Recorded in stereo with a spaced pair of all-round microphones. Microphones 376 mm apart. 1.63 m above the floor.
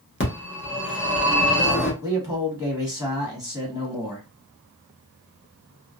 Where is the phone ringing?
30° left (ahead or behind), 0.9 m.